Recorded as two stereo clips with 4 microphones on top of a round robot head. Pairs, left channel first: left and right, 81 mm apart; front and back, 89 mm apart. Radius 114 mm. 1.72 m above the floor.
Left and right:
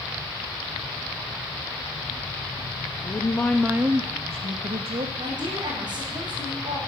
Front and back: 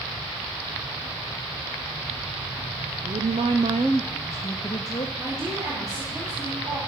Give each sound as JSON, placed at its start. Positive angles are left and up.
{"t": 3.0, "sound": "a woman speaking", "azimuth_deg": 145, "distance_m": 1.0}
{"t": 5.2, "sound": "a woman speaking", "azimuth_deg": -125, "distance_m": 5.5}